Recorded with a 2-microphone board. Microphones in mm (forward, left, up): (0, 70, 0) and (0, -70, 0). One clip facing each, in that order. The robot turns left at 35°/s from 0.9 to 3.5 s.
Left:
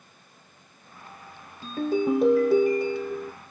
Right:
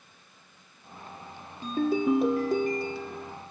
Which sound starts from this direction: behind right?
A ringtone, at 1.6 s.